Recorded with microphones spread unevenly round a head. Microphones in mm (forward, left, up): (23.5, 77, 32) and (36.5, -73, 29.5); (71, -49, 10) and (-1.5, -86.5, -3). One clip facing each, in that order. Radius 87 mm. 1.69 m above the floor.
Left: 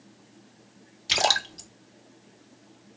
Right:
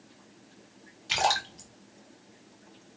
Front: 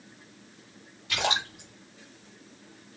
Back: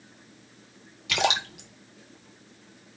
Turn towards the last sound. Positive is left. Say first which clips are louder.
# left 1 dB, back 3 dB
turn(degrees=155)